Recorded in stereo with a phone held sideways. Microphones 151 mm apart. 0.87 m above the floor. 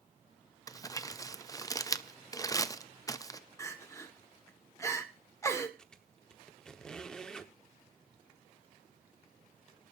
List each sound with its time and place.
0.7 s crumpling: 20° left (ahead or behind), 0.5 m
3.6 s crying: 20° left (ahead or behind), 1.4 m
5.8 s a squeak: 5° left (ahead or behind), 1.0 m